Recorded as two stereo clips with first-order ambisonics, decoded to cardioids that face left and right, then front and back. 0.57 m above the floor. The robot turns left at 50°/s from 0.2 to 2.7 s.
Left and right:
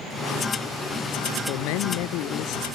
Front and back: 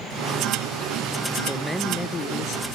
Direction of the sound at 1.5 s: 100° left.